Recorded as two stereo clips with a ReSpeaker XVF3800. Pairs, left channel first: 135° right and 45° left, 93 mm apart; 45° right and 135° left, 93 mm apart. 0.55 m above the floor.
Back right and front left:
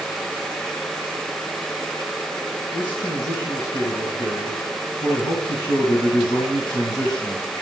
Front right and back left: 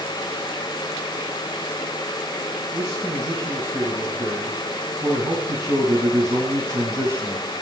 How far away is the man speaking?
About 4 m.